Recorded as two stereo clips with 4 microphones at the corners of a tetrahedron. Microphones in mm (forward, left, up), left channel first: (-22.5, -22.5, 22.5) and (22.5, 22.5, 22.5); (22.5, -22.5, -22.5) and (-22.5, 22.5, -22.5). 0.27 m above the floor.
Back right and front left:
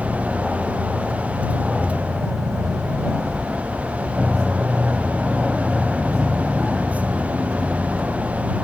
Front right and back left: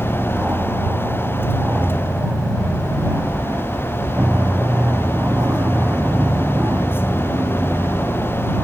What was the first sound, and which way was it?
An aircraft, 135° left.